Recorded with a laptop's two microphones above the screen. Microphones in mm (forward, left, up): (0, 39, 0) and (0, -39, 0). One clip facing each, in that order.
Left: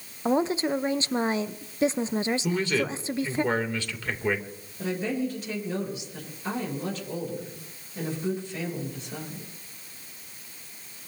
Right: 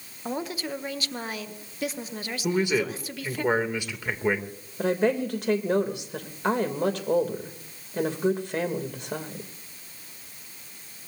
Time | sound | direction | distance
0.2 | a woman speaking | 25° left (ahead or behind) | 0.7 m
2.4 | a man speaking | 15° right (ahead or behind) | 2.5 m
4.8 | a woman speaking | 65° right (ahead or behind) | 3 m